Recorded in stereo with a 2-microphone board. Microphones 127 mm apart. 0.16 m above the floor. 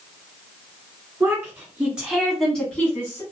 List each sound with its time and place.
1.2 s a woman speaking: 20° right (ahead or behind), 1.4 m; by 3.2 s 20° left (ahead or behind), 1.2 m